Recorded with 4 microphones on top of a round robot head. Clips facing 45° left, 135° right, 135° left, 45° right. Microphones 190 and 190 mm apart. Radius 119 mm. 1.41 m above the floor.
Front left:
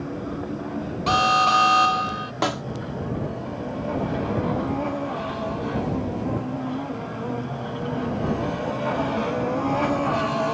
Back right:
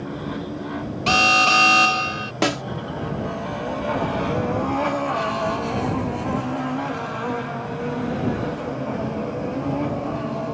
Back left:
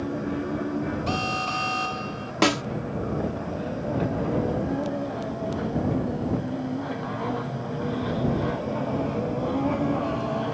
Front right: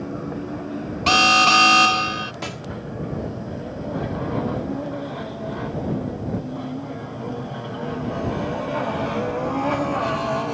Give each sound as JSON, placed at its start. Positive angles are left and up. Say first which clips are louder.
{"t": 1.1, "sound": "an alarm", "louder": "back right 2 dB, front right 7 dB", "azimuth_deg": -65}
{"t": 2.4, "sound": "a snare drum", "louder": "back right 4 dB, back left 10 dB", "azimuth_deg": 160}